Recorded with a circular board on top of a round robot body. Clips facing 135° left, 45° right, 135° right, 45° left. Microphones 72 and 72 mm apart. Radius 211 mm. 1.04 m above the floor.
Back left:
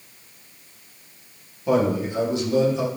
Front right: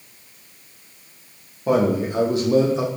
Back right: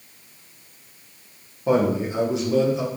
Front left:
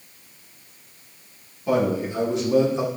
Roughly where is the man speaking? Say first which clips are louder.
Front right 2 dB, back right 2 dB; right.